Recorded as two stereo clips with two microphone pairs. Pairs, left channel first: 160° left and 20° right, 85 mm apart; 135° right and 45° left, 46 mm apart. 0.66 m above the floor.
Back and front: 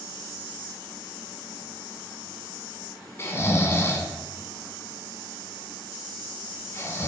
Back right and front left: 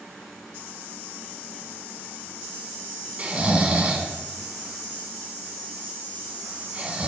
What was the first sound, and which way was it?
Snoring, 105° left.